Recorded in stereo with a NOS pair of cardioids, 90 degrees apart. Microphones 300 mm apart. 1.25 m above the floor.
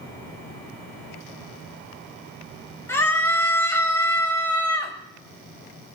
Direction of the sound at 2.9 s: 10° left.